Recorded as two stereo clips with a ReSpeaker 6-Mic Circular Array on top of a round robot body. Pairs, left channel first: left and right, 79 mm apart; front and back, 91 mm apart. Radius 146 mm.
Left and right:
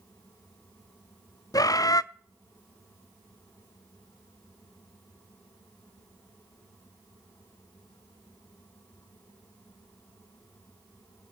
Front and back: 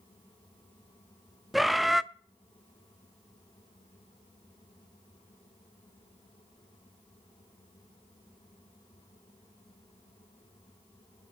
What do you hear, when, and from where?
1.5 s a bird: 90° left, 0.7 m